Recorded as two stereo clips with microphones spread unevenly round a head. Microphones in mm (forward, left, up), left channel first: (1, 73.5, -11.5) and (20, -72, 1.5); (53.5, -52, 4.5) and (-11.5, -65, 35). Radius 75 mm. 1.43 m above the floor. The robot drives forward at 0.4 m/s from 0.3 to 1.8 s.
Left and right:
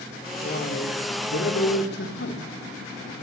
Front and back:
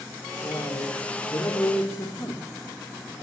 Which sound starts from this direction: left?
A man speaking, at 0.4 s.